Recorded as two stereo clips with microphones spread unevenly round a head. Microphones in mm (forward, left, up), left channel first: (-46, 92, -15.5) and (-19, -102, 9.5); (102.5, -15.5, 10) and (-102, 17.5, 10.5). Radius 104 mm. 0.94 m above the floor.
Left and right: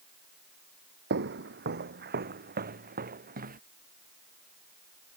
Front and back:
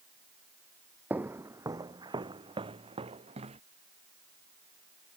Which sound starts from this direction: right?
Footsteps, at 1.1 s.